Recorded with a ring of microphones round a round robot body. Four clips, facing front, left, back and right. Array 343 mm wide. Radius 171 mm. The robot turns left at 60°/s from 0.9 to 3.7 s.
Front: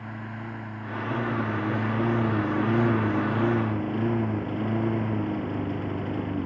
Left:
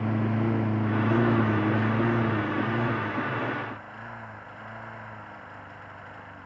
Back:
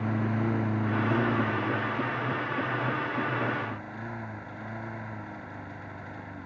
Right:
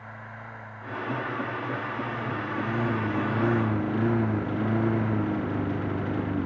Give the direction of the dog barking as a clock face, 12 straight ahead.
I don't hear a dog barking.